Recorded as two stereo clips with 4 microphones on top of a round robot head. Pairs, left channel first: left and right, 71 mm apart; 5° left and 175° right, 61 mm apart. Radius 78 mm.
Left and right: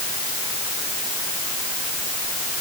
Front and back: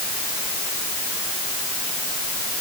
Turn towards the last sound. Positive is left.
No sound to turn to.